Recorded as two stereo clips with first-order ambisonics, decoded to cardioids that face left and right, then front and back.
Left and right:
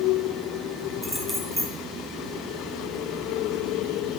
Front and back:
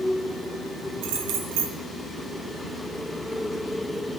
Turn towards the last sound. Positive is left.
turn(degrees=-175)